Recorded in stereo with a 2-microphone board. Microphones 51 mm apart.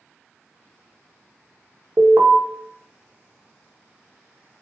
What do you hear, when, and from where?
2.0 s an alarm: 45° right (ahead or behind), 0.6 m